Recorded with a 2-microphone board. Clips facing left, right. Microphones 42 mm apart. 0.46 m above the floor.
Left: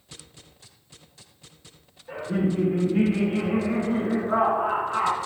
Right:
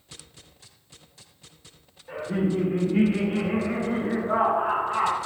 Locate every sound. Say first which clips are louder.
2.1 s laughter: even; 5° right (ahead or behind), 0.9 m; by 5.2 s 45° right (ahead or behind), 3 m